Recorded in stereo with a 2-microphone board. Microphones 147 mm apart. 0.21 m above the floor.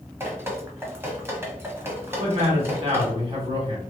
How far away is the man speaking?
About 1.8 m.